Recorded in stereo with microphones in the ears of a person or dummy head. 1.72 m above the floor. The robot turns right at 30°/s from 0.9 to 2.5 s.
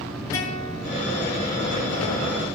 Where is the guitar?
15° left (ahead or behind), 6 m.